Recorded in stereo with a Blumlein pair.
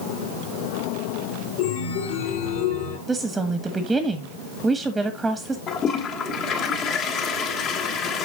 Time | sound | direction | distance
1.6 | a chime | 55° left | 3.5 m
3.1 | a woman speaking | 10° right | 1.4 m
5.7 | a toilet flushing | 35° left | 1.8 m